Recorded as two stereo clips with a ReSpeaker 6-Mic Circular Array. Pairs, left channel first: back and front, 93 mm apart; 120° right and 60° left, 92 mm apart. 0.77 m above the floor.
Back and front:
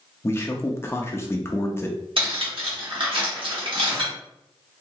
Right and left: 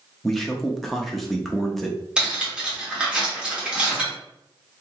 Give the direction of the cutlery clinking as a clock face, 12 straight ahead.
1 o'clock.